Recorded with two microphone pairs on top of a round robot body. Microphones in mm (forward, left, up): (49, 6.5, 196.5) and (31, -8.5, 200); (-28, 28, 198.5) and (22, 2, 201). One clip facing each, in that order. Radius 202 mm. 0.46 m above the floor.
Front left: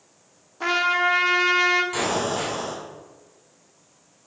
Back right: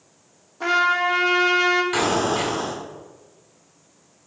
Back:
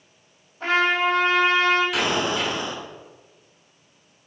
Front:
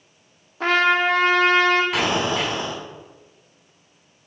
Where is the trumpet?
35° right, 1.2 m.